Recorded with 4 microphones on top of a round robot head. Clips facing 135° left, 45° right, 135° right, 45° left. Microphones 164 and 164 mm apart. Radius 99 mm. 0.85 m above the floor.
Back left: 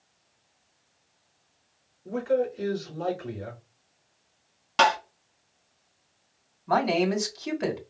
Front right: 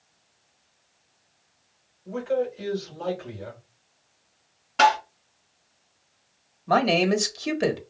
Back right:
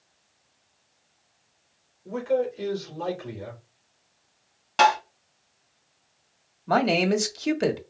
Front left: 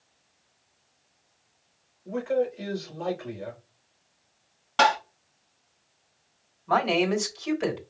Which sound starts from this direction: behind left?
Tapping, at 4.8 s.